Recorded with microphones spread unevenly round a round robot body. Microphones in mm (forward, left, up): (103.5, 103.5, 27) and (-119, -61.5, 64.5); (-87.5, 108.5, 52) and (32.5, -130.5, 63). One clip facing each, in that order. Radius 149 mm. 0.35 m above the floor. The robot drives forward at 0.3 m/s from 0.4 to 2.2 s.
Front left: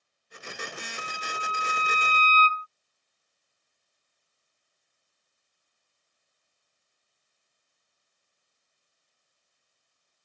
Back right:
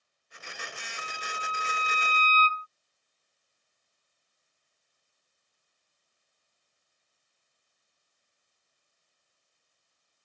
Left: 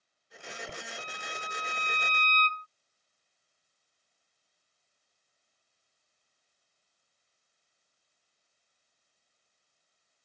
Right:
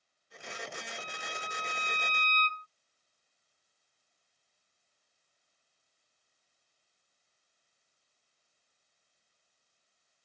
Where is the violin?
20° left.